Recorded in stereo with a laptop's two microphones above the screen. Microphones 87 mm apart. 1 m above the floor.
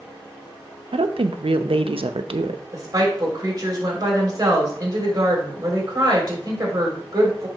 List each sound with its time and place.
0.9 s a woman speaking: 80° right, 0.6 m
2.7 s a woman speaking: 40° right (ahead or behind), 3 m